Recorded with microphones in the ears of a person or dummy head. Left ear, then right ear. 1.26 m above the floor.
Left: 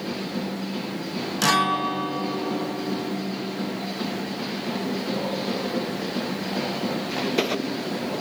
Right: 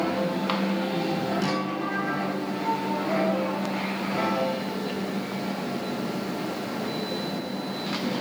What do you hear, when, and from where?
1.4 s a guitar: 40° left (ahead or behind), 0.6 m